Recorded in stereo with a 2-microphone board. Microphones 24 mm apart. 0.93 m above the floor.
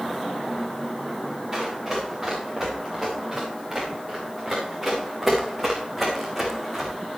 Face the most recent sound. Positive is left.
turn(degrees=0)  # may be behind; listen again after turning